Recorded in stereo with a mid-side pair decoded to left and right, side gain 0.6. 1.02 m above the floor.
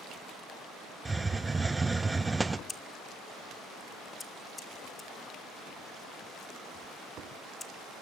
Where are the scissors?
20° left, 1.9 m.